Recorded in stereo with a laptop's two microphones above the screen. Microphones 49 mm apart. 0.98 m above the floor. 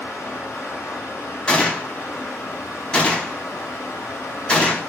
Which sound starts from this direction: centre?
A gunshot, at 1.5 s.